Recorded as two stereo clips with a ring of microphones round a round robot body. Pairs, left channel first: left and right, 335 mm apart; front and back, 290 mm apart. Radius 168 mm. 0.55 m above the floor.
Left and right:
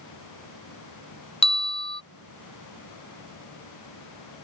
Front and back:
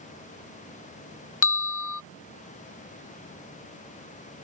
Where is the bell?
15° left.